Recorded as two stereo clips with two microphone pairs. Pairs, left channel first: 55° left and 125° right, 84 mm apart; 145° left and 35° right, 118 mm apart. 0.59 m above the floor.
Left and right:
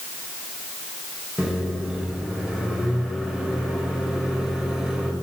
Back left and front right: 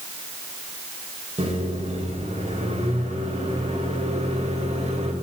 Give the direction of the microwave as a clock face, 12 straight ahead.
1 o'clock.